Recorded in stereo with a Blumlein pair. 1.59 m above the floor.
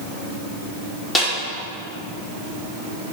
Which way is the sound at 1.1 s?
10° left.